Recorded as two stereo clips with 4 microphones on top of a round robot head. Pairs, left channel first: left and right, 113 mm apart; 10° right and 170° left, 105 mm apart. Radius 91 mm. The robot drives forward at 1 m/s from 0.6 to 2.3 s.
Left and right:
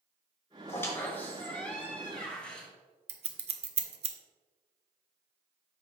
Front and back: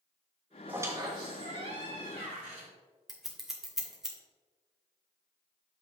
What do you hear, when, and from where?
0.7 s a squeak: 120° left, 1.0 m; by 2.7 s 170° left, 2 m
3.1 s scissors: 105° right, 0.9 m